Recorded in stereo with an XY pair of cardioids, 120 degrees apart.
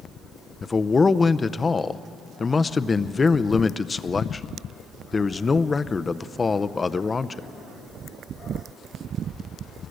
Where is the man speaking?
25° left, 0.6 m.